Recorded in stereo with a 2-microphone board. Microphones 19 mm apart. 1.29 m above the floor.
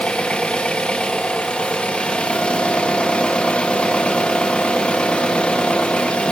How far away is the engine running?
About 0.9 m.